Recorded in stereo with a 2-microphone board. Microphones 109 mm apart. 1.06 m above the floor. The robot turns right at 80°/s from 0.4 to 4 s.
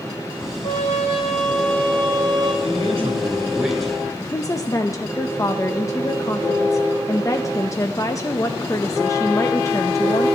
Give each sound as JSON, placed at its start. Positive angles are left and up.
{"t": 0.6, "sound": "a trumpet", "azimuth_deg": 75, "distance_m": 8.5}
{"t": 2.6, "sound": "a man speaking", "azimuth_deg": -95, "distance_m": 4.5}
{"t": 4.2, "sound": "a woman speaking", "side_deg": 30, "distance_m": 0.7}